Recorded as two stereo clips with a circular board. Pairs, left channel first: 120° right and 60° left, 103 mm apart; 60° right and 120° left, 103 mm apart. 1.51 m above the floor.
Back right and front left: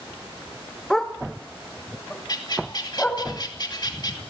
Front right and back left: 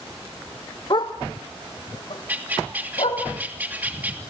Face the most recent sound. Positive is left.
turn(degrees=-165)